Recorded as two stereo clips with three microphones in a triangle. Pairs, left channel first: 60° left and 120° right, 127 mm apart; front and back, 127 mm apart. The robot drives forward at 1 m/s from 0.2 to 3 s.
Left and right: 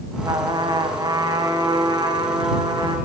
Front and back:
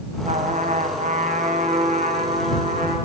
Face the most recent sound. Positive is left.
turn(degrees=180)